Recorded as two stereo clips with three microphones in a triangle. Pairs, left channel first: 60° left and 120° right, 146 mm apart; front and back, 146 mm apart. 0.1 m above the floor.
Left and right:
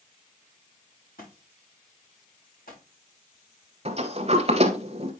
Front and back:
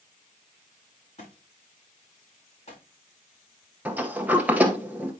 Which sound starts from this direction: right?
A sliding door, at 3.9 s.